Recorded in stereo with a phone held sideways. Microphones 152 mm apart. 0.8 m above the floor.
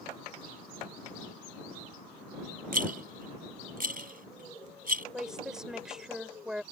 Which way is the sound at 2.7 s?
75° right (ahead or behind).